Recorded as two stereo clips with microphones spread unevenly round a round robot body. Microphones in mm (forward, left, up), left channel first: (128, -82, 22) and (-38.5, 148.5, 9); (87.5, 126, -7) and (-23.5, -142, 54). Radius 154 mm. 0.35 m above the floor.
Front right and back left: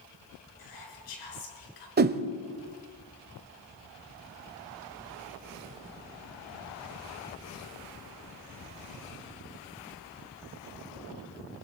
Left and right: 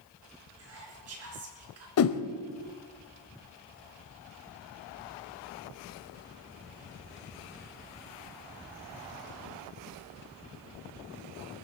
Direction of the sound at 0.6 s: 70° right.